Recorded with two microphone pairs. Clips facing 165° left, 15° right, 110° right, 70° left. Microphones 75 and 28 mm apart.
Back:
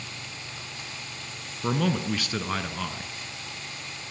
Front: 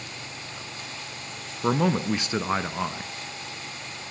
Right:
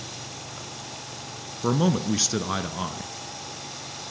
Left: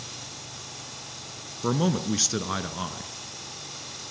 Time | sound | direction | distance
1.6 | a man speaking | 30° right | 1.2 m